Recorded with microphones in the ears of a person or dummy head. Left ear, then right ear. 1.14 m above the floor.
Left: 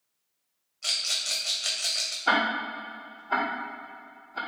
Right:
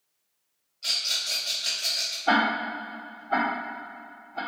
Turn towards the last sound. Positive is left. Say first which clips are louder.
# right 2 dB
turn(degrees=60)  # may be behind; listen again after turning